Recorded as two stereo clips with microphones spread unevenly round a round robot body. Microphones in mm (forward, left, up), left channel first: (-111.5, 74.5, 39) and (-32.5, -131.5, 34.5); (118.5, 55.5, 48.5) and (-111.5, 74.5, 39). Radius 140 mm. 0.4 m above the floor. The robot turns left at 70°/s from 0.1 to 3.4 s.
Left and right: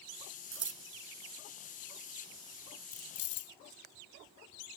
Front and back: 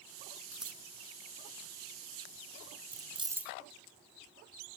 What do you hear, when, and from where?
0.5 s scissors: 90° right; by 0.8 s 110° right
2.9 s keys jangling: 125° left; by 3.5 s 95° left